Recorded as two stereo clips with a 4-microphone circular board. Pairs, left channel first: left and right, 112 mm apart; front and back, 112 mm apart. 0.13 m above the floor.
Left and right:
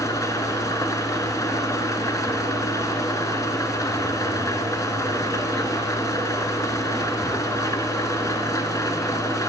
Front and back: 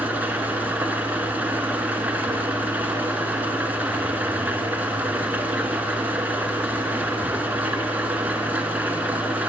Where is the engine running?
115° left, 0.9 m.